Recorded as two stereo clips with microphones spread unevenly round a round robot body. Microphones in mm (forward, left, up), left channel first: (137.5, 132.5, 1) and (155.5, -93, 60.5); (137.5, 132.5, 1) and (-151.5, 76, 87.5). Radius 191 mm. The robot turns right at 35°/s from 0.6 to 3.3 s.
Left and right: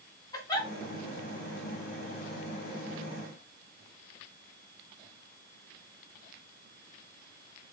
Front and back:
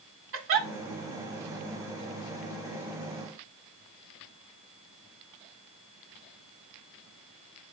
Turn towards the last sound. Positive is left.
turn(degrees=-125)